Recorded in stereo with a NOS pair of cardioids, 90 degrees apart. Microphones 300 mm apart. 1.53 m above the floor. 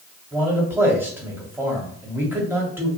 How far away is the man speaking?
About 1.4 m.